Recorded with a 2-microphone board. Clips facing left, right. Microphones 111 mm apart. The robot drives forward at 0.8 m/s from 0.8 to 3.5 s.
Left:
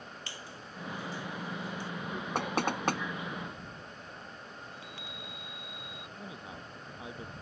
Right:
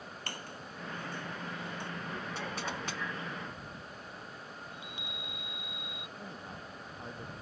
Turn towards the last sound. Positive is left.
turn(degrees=5)  # may be behind; listen again after turning